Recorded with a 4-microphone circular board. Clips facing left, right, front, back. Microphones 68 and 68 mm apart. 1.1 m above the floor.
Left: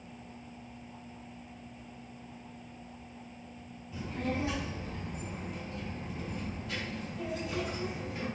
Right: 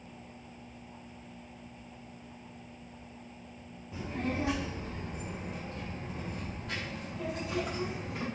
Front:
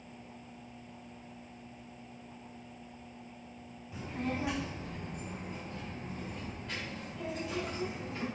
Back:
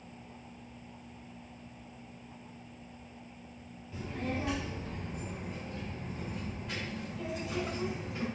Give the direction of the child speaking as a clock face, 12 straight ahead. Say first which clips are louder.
Even, even; 2 o'clock.